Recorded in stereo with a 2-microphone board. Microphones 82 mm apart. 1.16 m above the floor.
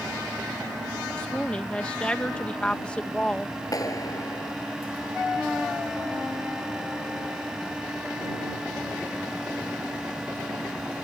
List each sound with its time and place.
1.2 s a woman speaking: 15° left (ahead or behind)
3.7 s a clap: 45° left (ahead or behind)